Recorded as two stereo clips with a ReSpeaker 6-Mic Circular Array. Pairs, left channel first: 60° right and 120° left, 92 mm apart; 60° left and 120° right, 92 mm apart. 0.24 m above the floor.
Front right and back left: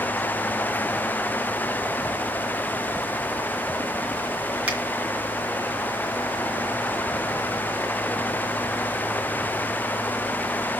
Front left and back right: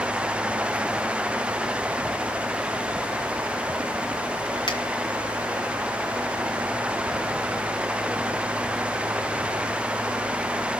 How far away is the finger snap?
About 2.5 m.